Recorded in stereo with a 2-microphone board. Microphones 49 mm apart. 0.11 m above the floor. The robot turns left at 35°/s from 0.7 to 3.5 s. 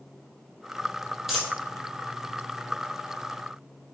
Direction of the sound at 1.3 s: 5° right (ahead or behind).